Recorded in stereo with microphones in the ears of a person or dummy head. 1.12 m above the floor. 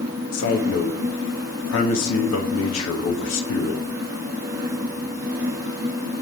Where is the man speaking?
80° left, 1.5 m.